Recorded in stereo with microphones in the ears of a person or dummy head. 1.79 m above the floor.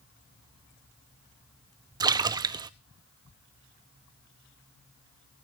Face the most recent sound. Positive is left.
turn(degrees=-15)  # may be behind; listen again after turning